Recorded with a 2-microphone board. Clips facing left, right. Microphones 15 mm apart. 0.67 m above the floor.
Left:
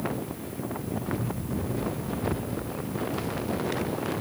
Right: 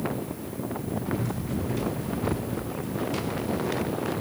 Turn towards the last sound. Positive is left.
turn(degrees=-50)  # may be behind; listen again after turning